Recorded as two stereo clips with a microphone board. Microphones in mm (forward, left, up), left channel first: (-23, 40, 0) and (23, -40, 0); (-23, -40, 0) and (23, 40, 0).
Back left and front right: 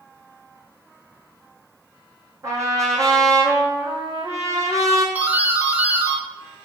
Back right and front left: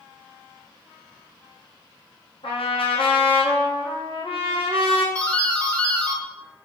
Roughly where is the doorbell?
Right.